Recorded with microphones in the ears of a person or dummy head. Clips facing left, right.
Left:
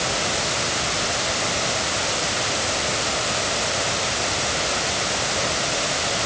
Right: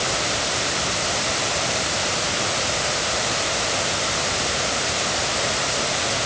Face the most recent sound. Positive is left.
No sound to turn to.